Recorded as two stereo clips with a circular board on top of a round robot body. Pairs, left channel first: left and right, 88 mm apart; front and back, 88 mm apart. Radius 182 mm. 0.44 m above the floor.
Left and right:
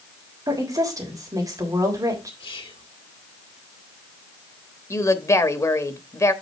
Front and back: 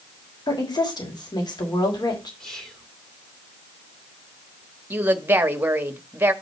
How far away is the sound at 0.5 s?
About 3.5 m.